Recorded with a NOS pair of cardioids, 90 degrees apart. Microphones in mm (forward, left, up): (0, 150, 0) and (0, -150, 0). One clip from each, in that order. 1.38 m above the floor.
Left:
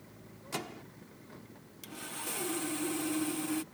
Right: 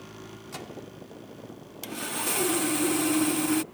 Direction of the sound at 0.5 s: 15° left.